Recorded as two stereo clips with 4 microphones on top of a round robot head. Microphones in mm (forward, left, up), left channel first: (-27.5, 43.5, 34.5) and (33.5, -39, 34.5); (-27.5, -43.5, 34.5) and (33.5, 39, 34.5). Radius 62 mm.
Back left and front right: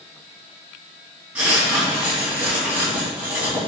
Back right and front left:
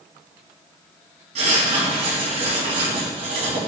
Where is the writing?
25° left, 3.5 m.